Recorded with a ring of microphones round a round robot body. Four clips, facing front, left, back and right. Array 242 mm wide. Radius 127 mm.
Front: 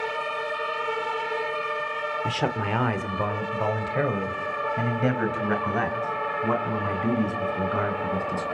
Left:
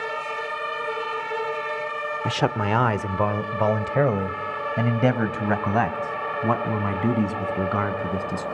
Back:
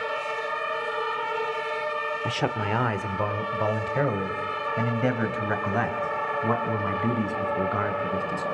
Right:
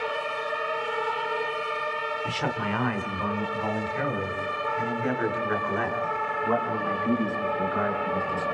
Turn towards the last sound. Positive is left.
turn(degrees=90)